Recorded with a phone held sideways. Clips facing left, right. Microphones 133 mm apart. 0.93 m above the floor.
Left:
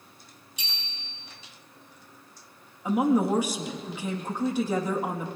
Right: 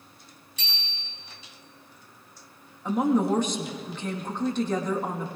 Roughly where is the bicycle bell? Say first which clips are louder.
Right 3 dB; centre.